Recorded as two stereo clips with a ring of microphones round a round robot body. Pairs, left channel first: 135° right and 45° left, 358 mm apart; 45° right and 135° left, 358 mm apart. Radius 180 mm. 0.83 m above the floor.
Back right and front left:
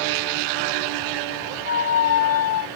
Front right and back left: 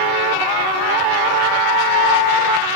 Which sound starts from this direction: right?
A squeak, at 1.6 s.